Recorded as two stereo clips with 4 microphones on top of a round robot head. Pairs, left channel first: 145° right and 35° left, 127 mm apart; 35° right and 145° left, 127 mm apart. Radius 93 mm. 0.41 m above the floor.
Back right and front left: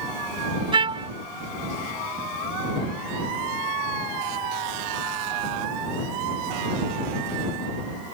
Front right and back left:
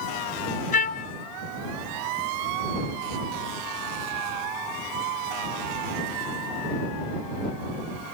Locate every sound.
0.7 s a trumpet: 20° right